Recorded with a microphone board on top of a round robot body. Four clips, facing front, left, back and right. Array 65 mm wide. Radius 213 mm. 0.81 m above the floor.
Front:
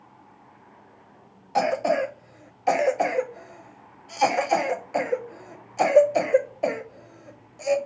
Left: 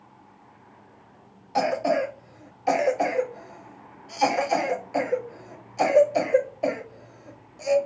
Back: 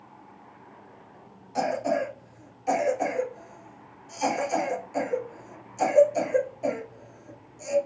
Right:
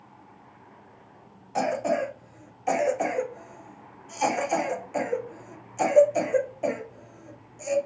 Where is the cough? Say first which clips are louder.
Left 2 dB, front 4 dB; 15° left, 0.9 m.